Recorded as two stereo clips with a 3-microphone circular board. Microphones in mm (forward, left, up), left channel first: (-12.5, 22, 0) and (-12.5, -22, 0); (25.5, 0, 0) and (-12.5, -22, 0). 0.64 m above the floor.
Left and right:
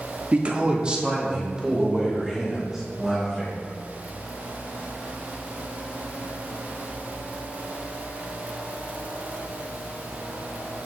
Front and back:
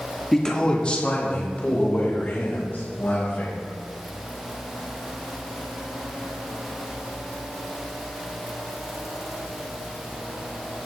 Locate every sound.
0.3 s a man speaking: 50° right, 1.3 m; by 3.6 s 5° right, 4 m